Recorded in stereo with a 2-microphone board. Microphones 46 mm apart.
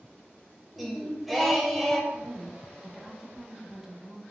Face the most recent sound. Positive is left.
turn(degrees=-10)  # may be behind; listen again after turning